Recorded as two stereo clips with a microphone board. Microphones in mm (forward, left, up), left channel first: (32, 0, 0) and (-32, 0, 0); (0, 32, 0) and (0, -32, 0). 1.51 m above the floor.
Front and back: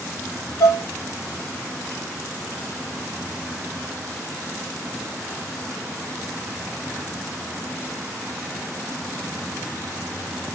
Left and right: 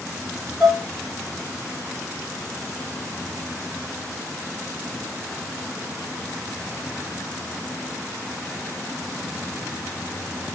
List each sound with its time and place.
0.6 s dishes clattering: 15° right, 4.5 m